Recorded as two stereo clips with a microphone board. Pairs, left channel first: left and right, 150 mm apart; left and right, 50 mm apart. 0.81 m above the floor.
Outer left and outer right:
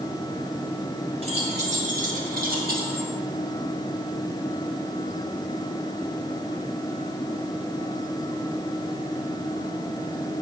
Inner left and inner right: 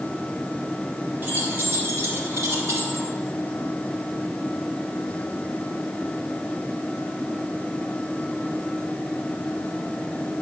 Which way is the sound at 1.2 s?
40° right (ahead or behind).